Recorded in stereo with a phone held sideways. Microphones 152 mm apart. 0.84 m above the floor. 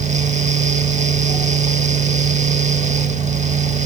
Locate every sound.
0.0 s a fan: 50° right (ahead or behind), 0.8 m